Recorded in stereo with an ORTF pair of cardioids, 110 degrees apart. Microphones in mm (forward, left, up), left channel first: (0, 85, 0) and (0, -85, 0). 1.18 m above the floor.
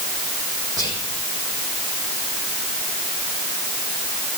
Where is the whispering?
20° right, 1.5 m.